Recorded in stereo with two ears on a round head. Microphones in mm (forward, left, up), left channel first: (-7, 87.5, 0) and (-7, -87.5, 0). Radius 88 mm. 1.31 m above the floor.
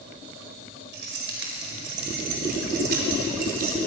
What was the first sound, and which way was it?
Keys jangling, 65° right (ahead or behind).